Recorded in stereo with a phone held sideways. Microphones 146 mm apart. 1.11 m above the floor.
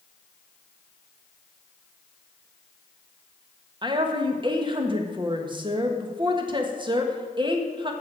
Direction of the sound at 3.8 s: 35° right (ahead or behind).